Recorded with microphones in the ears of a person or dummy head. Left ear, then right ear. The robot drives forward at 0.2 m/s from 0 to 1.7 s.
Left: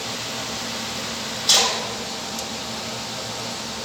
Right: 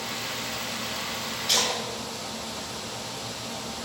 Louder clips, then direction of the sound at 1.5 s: Left 7 dB; 70° left (ahead or behind).